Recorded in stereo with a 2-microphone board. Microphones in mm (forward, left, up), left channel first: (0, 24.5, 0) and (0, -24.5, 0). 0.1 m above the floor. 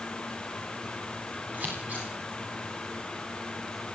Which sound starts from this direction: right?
Scissors, at 1.5 s.